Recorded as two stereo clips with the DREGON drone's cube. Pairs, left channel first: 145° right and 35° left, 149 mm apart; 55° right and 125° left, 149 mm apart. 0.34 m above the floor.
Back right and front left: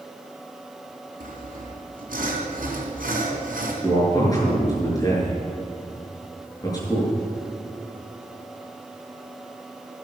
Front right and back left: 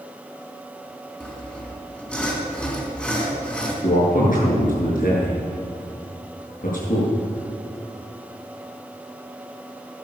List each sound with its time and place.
1.2 s sawing: 25° left, 3.5 m
3.8 s a man speaking: 80° right, 7 m